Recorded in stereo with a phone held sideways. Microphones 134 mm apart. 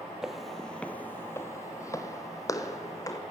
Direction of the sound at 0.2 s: 5° right (ahead or behind).